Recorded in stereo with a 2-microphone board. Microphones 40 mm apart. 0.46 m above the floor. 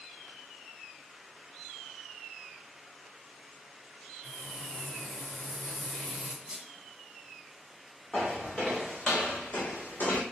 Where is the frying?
25° left (ahead or behind), 2.0 m.